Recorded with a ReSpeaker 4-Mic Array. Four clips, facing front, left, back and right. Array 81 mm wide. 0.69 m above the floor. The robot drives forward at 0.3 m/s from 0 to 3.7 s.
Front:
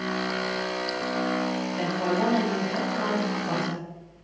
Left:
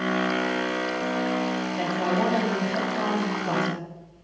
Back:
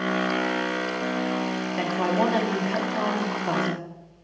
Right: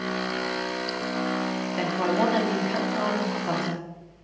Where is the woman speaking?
145° right, 1.0 m; by 3.9 s 160° right, 1.4 m.